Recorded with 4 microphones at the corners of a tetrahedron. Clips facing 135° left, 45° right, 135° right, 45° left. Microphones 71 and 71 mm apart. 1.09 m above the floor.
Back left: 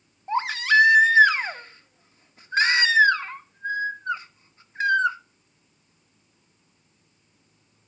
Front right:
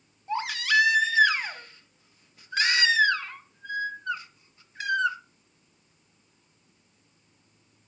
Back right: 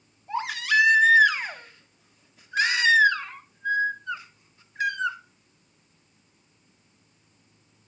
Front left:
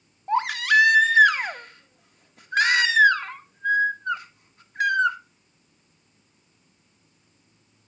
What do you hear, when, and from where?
0.3 s a baby crying: 75° left, 1.1 m